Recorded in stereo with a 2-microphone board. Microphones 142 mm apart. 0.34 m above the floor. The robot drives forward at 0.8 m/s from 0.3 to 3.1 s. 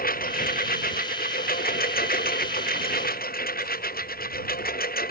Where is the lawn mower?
80° left; by 5.1 s 85° left.